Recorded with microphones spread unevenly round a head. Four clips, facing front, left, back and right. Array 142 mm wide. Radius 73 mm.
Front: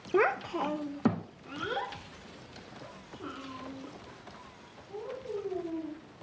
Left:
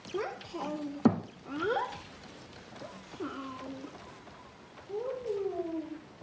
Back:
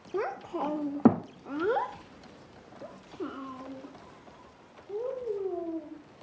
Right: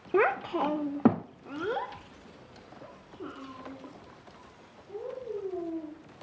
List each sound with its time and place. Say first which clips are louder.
0.1 s a child speaking: right 10 dB, front 5 dB; 60° right, 0.6 m; by 5.9 s 165° left, 4 m